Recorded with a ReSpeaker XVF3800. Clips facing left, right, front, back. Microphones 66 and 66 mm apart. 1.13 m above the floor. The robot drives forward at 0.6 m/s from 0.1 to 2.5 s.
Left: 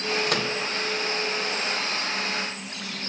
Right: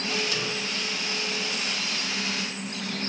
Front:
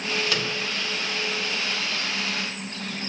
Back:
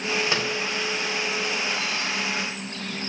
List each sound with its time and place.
0.3 s a microwave: 115° left, 0.6 m; by 0.6 s 130° left, 0.7 m